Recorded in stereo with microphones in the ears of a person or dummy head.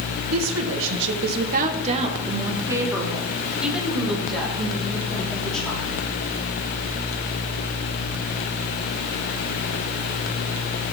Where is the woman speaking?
85° right, 1.5 m; by 5.9 s 5° left (ahead or behind), 5 m.